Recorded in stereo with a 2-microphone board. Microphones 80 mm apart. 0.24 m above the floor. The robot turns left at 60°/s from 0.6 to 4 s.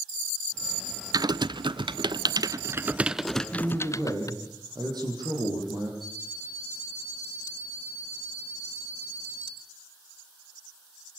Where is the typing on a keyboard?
50° right (ahead or behind), 0.6 m; by 4.3 s 45° left (ahead or behind), 0.6 m.